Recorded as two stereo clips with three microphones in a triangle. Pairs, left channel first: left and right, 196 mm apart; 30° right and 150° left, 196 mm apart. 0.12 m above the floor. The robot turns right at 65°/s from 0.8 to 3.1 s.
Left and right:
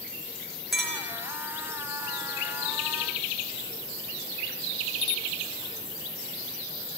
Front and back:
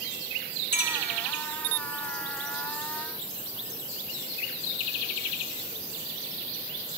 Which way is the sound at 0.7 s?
Straight ahead.